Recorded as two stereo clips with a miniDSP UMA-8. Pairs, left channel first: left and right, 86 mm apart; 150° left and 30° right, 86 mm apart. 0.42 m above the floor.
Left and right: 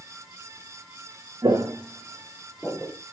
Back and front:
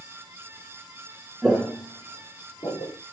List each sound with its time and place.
1.4 s footsteps: 105° right, 0.5 m; by 2.9 s 175° left, 2 m